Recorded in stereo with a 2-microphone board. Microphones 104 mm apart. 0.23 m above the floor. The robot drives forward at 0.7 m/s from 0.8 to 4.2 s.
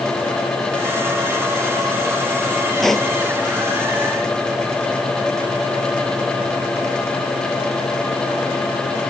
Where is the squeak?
I don't hear a squeak.